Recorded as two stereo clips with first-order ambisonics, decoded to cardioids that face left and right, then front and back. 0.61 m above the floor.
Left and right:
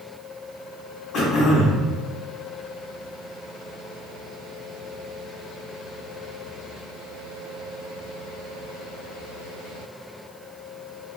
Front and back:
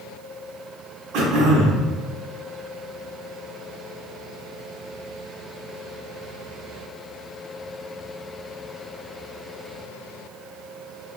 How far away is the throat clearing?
About 0.8 m.